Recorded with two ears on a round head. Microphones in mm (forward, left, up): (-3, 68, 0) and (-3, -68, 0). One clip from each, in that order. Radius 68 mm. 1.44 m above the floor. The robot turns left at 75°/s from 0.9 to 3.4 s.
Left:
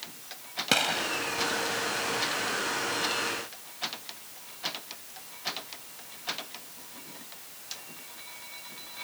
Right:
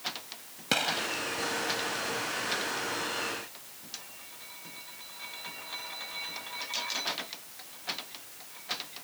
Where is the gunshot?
10° left (ahead or behind); by 1.1 s 5° right (ahead or behind).